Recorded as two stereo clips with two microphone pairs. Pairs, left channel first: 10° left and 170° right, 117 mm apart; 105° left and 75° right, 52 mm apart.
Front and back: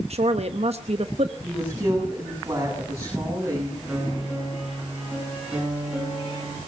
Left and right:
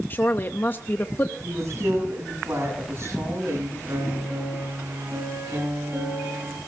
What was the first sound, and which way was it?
A woman speaking, 160° left.